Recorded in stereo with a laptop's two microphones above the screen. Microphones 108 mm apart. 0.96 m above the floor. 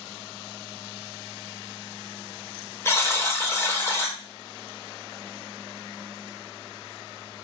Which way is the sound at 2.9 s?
25° left (ahead or behind).